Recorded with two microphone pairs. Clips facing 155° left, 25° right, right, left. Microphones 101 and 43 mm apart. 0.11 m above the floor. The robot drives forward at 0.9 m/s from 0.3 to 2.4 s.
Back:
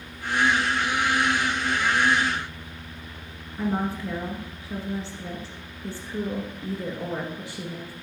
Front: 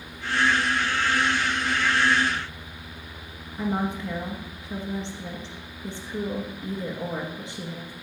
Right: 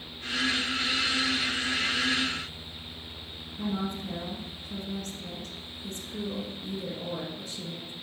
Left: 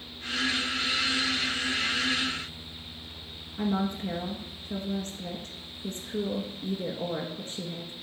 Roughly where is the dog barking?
No dog barking in this recording.